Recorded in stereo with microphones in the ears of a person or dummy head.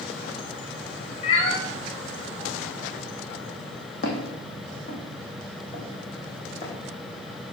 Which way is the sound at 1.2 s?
40° left (ahead or behind).